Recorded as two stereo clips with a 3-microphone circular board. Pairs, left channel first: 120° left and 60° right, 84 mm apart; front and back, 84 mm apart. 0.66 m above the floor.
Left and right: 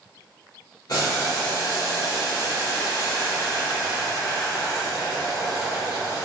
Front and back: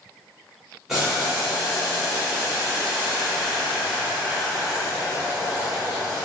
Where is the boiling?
95° left, 1.4 m.